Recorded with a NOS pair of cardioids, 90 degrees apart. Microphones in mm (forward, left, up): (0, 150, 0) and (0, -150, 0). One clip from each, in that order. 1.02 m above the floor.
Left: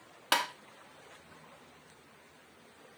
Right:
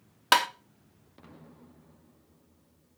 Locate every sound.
0.3 s tapping: 30° right, 0.9 m